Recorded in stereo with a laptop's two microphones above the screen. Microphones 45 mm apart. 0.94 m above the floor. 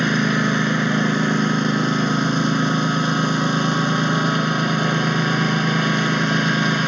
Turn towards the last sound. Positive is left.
turn(degrees=-5)  # may be behind; listen again after turning